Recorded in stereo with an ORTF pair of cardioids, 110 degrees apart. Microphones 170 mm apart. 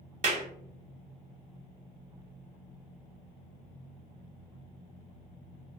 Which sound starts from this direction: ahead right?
A clap, at 0.2 s.